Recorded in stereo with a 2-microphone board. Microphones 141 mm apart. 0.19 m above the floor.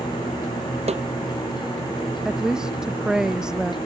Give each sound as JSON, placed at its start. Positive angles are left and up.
{"t": 0.9, "sound": "a snare drum", "side_deg": -45}
{"t": 2.2, "sound": "a woman speaking", "side_deg": -5}